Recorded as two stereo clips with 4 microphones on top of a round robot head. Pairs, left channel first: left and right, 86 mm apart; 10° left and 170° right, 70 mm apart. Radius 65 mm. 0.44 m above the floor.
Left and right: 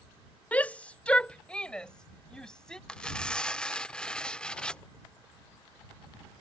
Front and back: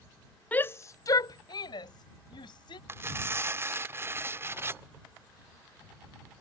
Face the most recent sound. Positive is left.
turn(degrees=165)